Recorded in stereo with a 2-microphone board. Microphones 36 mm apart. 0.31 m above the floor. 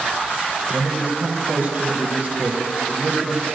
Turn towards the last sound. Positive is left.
turn(degrees=-50)  # may be behind; listen again after turning